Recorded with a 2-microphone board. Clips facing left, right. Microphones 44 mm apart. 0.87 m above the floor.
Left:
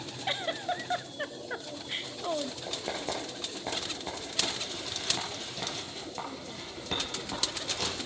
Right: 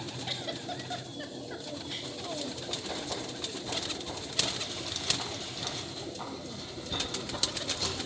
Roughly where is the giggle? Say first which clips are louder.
Left 8 dB; left.